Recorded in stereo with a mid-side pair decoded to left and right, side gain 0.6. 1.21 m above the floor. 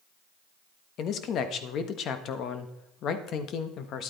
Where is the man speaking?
55° left, 1.3 m.